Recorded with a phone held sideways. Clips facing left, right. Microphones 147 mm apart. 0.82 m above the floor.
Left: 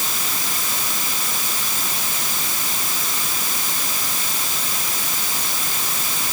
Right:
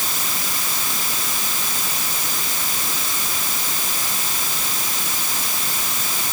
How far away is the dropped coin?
No dropped coin in this recording.